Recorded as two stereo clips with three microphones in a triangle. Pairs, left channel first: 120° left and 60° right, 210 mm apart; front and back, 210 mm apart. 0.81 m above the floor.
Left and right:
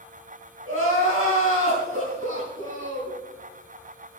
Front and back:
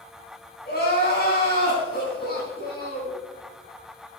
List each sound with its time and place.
0.7 s crying: 45° right, 3.5 m